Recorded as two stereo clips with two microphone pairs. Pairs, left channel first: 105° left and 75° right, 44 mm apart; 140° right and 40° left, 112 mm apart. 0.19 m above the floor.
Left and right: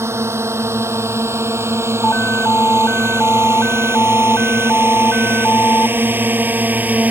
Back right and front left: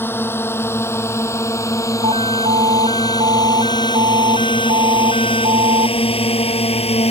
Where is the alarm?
60° left.